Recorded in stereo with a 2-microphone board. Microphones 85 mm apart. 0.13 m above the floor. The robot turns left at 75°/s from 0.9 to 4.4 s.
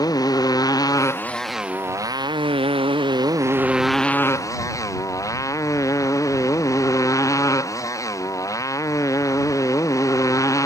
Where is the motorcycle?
45° left; by 10.7 s 140° left.